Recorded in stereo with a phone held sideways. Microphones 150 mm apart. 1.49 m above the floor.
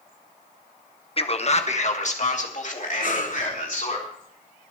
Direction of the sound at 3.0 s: 60° left (ahead or behind).